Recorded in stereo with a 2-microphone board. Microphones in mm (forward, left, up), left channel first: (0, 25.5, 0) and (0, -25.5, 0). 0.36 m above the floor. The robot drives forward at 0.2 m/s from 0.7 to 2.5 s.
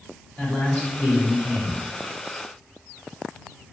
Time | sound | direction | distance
0.4 | a man speaking | 35° left (ahead or behind) | 1.1 m